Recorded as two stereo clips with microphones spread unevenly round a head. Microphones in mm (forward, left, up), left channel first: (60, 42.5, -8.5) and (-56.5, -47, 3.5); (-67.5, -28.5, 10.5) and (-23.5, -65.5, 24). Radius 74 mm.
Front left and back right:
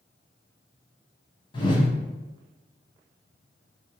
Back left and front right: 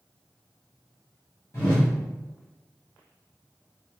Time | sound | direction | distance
1.5 | a whoosh | 80° left | 0.7 m